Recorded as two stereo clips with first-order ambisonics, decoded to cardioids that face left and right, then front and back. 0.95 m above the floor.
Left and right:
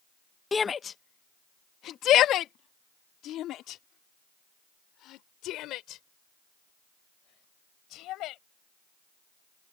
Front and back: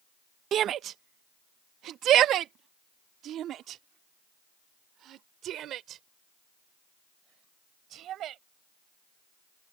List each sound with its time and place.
0.5 s a shout: 160° left; by 8.4 s 130° left